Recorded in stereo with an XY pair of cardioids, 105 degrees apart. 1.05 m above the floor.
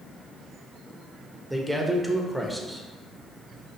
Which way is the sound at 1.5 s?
Straight ahead.